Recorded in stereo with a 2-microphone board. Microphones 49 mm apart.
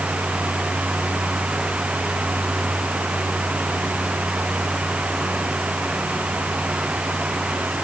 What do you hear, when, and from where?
Only background noise.